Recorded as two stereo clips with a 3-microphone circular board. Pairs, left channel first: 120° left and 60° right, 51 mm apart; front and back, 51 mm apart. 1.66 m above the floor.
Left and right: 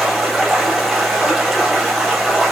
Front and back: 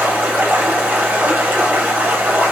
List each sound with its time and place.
0.0 s running water: 150° right, 1.0 m